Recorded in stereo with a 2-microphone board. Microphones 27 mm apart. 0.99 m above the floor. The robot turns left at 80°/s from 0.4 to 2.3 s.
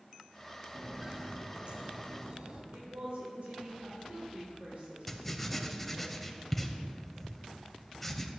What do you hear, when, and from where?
0.8 s footsteps: 20° right (ahead or behind), 1.0 m; by 2.6 s 55° right (ahead or behind), 2.0 m
2.7 s a woman speaking: 75° right (ahead or behind), 3 m
5.1 s writing: 10° left (ahead or behind), 0.8 m